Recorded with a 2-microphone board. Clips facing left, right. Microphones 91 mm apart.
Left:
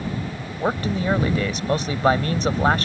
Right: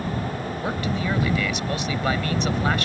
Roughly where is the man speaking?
Left.